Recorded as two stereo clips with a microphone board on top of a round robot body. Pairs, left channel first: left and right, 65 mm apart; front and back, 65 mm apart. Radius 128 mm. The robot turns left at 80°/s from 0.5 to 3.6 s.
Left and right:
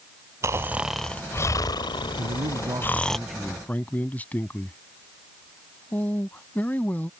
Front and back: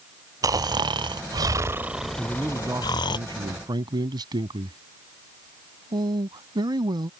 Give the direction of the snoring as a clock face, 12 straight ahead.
5 o'clock.